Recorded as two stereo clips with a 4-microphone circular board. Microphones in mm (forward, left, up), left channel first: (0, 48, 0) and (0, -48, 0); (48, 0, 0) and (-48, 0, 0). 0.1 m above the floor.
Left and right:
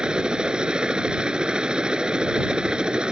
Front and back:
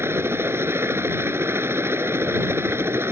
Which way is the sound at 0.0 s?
160° right.